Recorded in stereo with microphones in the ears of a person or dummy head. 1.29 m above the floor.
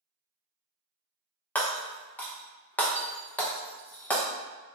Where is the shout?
I don't hear a shout.